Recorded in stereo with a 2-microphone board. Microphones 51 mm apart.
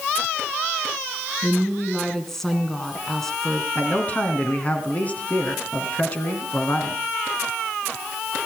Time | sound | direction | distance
1.4 | a woman speaking | 5° left (ahead or behind) | 2 m
3.8 | a man speaking | 30° left (ahead or behind) | 2.5 m